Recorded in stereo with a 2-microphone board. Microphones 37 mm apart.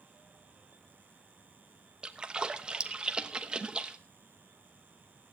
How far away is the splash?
About 1.0 m.